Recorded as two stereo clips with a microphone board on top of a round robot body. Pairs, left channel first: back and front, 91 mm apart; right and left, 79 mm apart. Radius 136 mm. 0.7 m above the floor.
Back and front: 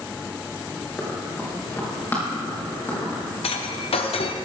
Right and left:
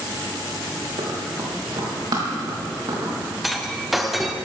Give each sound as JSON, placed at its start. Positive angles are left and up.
{"t": 1.0, "sound": "running footsteps", "azimuth_deg": 105, "distance_m": 4.0}
{"t": 3.4, "sound": "breaking glass", "azimuth_deg": 180, "distance_m": 0.9}